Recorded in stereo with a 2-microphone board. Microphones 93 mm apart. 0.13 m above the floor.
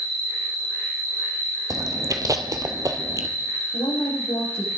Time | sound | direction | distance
0.0 | an insect | 60° right (ahead or behind) | 7 m
1.7 | chewing | 40° right (ahead or behind) | 1.4 m
3.7 | a woman speaking | 75° left (ahead or behind) | 8 m